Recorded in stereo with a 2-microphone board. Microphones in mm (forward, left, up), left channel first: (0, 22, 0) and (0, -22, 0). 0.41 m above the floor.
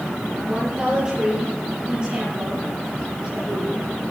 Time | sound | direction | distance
0.5 | a woman speaking | 20° right (ahead or behind) | 8.5 m